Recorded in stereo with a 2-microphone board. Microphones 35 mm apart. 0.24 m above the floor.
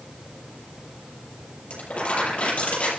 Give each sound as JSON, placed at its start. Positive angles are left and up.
{"t": 1.7, "sound": "crumpling", "side_deg": 40, "distance_m": 6.5}